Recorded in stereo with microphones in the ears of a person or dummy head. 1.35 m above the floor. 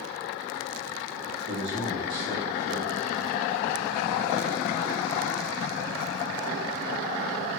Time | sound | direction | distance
1.5 | a man speaking | 25° right (ahead or behind) | 1.4 m